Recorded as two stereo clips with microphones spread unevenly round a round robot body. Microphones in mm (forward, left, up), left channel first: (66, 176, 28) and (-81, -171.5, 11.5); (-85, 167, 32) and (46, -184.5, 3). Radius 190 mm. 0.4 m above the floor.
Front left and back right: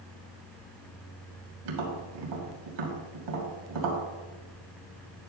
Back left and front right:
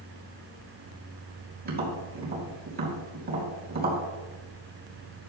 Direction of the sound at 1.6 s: 130° right.